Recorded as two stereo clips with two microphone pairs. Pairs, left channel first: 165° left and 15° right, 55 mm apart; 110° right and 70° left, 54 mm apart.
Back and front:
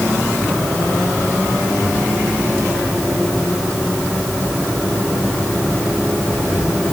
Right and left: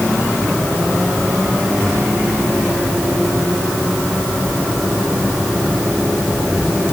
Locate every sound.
Only background noise.